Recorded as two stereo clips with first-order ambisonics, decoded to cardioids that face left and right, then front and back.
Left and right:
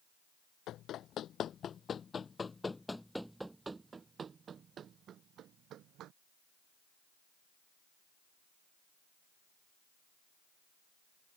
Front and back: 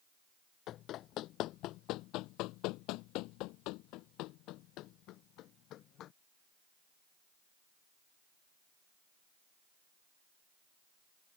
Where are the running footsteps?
45° left; by 6.1 s 45° right.